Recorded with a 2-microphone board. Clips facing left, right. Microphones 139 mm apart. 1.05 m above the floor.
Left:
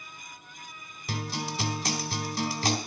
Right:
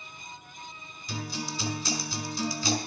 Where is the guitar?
65° left (ahead or behind), 1.8 m.